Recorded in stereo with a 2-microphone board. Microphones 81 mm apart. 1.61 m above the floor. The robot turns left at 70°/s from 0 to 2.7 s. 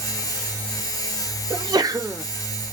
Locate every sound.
1.5 s a sneeze: 105° right, 0.7 m; by 2.2 s 160° right, 0.7 m